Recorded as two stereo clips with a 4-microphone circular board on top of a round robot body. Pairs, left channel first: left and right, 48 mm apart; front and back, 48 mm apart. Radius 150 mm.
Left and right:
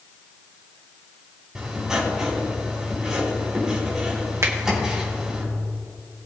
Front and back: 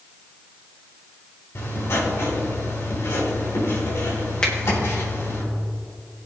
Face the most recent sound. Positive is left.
turn(degrees=-70)